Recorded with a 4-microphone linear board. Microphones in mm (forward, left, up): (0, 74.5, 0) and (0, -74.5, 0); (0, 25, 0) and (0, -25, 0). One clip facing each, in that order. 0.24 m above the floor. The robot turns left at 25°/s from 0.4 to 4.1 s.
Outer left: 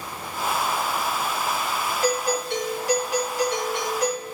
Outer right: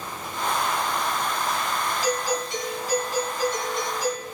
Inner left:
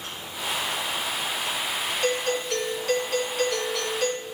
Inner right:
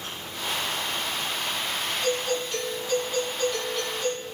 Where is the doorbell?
120° left, 8.5 m; by 4.2 s 70° left, 8.5 m.